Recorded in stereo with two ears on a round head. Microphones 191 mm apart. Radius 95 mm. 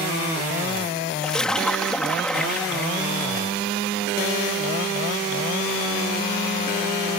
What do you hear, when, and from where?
1.2 s a splash: 5° left (ahead or behind)